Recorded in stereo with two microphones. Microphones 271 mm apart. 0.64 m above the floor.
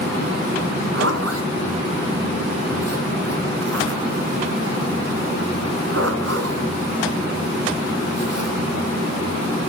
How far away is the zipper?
About 1.5 m.